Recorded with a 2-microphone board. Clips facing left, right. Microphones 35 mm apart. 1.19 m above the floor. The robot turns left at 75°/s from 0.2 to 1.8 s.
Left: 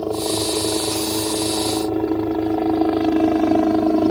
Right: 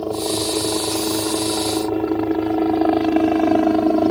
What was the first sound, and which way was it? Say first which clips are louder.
A helicopter: even; 15° right (ahead or behind).